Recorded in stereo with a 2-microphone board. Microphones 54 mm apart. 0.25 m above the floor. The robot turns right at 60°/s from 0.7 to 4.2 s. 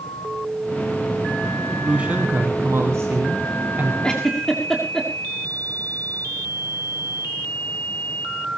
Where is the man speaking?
165° right, 2.5 m; by 3.9 s 35° right, 2.5 m.